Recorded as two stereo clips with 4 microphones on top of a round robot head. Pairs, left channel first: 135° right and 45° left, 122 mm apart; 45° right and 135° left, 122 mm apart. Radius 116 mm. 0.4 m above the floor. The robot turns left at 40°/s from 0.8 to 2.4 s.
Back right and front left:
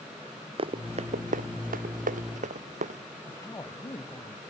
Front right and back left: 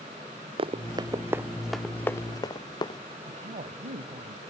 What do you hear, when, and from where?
0.6 s running footsteps: 90° left; by 3.0 s 15° left
3.3 s a woman speaking: 155° left